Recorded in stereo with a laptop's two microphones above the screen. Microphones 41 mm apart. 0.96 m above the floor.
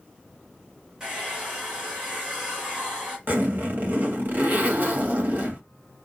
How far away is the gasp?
I don't hear a gasp.